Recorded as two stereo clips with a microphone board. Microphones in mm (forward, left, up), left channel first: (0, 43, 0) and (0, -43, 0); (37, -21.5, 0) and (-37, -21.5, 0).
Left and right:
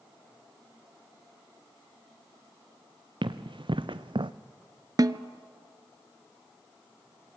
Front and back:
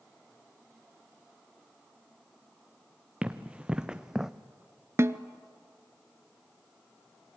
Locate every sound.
3.2 s running footsteps: 105° right, 1.3 m; by 4.3 s 95° right, 0.6 m
5.0 s a snare drum: 130° right, 0.6 m